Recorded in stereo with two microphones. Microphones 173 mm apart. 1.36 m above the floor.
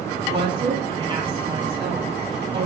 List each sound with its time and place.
0.2 s a woman speaking: 35° right (ahead or behind), 9 m